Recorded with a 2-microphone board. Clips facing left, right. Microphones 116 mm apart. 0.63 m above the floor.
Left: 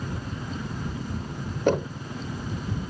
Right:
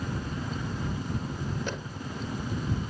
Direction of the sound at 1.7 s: 55° left (ahead or behind).